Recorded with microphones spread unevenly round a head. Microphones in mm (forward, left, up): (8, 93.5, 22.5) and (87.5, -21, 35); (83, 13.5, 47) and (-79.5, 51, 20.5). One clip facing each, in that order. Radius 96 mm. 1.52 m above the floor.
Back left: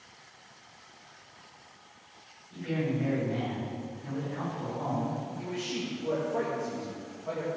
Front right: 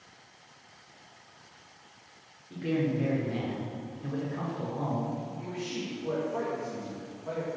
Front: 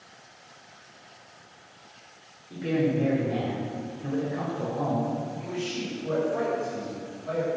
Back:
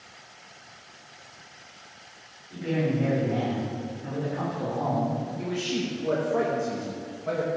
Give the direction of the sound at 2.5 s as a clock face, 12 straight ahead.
2 o'clock.